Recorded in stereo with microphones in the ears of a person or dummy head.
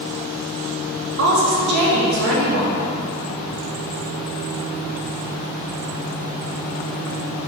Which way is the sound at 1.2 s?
55° right (ahead or behind).